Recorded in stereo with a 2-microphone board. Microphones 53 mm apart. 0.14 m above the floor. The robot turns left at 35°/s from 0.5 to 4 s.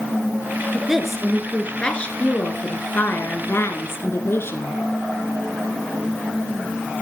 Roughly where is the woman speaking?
Behind.